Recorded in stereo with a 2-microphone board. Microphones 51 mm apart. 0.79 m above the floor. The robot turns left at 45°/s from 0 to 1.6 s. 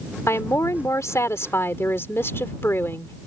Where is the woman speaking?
115° left; by 3.1 s 55° left.